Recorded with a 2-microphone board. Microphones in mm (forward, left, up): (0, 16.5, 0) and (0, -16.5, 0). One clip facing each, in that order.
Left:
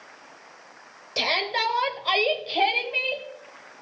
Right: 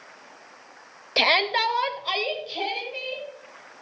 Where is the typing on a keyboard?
I don't hear typing on a keyboard.